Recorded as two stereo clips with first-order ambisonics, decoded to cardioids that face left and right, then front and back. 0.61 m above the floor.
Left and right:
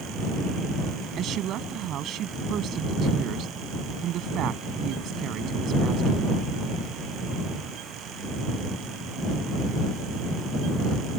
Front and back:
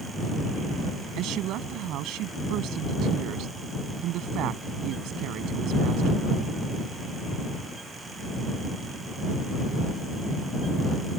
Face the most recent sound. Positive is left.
turn(degrees=-140)